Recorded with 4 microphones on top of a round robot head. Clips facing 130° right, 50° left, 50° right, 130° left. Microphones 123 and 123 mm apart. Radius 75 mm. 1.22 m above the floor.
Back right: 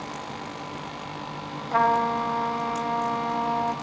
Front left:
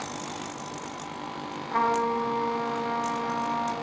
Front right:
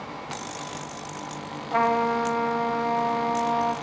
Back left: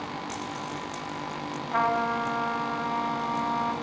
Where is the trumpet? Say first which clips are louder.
Back right 3 dB, front right 4 dB; 105° right, 3 m.